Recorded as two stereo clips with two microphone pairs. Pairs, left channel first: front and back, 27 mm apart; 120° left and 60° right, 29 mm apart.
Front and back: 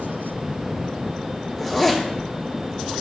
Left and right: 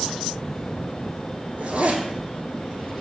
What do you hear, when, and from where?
1.6 s a zipper: 75° right, 0.9 m